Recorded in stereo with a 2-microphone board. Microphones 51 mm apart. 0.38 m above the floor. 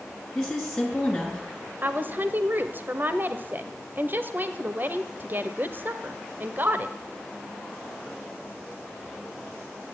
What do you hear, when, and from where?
0.3 s a woman speaking: 10° left (ahead or behind), 5.5 m
1.8 s a woman speaking: 40° right (ahead or behind), 1.2 m